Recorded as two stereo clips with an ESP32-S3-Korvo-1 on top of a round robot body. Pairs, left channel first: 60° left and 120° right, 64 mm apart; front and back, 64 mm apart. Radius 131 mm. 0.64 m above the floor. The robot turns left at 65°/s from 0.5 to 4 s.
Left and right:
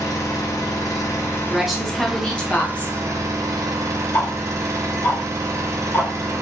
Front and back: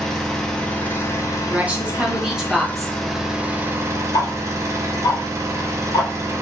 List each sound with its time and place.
0.0 s an engine running: 80° left, 0.8 m; by 6.4 s 150° right, 0.8 m
1.5 s a woman speaking: 170° left, 1.0 m; by 3.0 s 75° left, 1.0 m
4.1 s ticking: 10° left, 0.5 m